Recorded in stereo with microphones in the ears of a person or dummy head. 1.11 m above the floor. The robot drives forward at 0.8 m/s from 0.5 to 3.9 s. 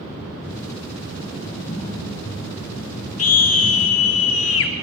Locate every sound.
1.4 s typing on a keyboard: 20° left (ahead or behind), 8 m; by 4.2 s 25° left (ahead or behind), 6.5 m
3.2 s a scream: 80° left, 3 m; by 4.7 s 70° left (ahead or behind), 3 m